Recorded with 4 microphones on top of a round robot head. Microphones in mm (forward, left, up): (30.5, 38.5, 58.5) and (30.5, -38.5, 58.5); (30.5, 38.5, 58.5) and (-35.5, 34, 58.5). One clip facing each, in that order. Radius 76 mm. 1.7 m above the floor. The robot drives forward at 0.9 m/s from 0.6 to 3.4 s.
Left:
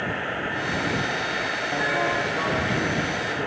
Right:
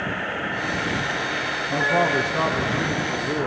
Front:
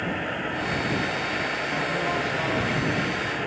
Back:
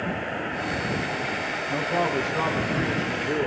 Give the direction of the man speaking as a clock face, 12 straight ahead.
4 o'clock.